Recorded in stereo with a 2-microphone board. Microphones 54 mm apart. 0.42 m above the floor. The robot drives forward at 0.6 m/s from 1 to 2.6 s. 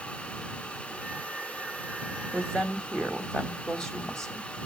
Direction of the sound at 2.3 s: 15° left (ahead or behind).